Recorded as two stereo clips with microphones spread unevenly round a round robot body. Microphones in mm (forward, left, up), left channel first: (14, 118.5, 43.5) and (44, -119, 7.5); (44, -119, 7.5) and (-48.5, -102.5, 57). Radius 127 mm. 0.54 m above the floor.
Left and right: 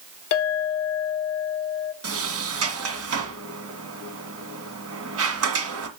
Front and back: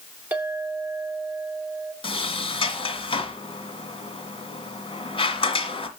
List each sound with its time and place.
0.3 s a clink: 70° left, 0.6 m
2.0 s a sliding door: 50° right, 1.9 m